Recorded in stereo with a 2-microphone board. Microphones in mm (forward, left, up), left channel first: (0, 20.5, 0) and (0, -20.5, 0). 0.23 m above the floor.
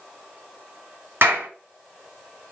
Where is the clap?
65° right (ahead or behind), 2 m.